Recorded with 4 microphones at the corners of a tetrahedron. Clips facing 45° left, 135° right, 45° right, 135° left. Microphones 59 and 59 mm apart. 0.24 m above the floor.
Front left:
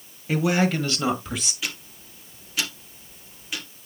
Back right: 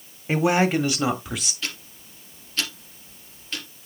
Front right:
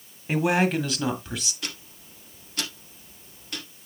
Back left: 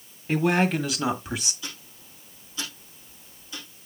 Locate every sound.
0.3 s a man speaking: 115° right, 1.6 m; by 1.5 s 135° left, 1.4 m
1.6 s ticking: 35° right, 2.5 m